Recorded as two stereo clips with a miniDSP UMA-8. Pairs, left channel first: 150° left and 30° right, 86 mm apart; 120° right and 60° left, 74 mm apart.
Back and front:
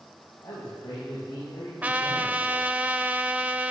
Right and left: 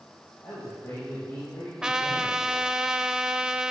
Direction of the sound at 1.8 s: 5° right.